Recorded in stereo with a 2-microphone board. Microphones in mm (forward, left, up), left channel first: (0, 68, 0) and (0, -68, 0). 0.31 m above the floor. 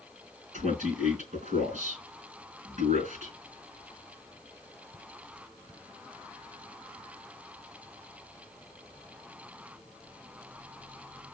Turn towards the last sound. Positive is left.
turn(degrees=-65)  # may be behind; listen again after turning